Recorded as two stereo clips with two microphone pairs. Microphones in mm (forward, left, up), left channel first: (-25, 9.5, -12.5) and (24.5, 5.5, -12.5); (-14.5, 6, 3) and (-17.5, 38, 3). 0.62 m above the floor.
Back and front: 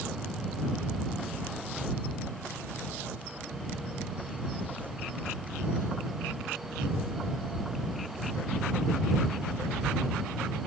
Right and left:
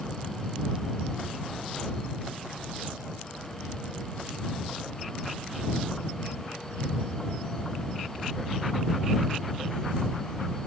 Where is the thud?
I don't hear a thud.